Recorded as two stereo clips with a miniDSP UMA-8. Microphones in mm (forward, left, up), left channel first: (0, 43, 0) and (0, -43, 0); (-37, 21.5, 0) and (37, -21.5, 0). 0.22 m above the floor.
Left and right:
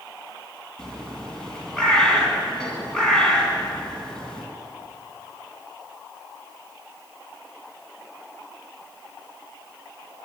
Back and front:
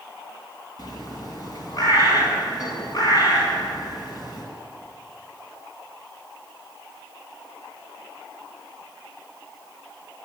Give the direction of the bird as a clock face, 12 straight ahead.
6 o'clock.